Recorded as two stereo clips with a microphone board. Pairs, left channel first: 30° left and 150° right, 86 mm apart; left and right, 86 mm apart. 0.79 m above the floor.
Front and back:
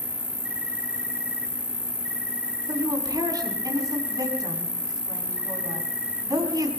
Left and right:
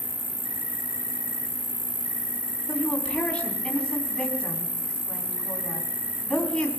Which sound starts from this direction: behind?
A woman speaking, at 2.7 s.